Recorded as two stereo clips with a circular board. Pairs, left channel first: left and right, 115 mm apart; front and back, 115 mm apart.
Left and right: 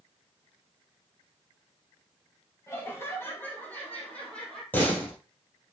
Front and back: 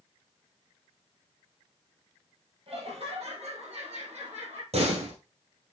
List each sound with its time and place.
2.7 s laughter: 155° left, 3.5 m; by 4.6 s 175° left, 4 m
4.7 s a door slam: 165° left, 3 m